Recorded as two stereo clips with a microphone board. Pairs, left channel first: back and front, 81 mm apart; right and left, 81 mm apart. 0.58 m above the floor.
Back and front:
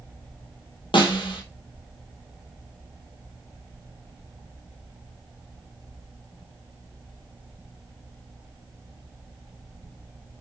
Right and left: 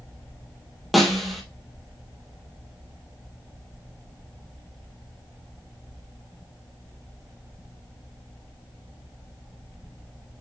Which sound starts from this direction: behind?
A snare drum, at 0.9 s.